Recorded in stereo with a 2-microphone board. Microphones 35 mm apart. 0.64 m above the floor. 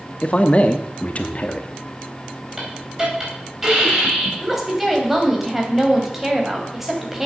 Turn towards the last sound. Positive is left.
turn(degrees=-10)  # may be behind; listen again after turning